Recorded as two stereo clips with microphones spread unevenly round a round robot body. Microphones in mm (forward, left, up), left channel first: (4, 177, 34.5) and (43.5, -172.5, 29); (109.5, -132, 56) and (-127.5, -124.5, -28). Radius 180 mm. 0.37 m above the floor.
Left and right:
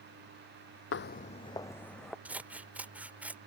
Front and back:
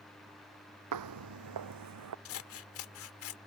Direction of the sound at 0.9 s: 150° left.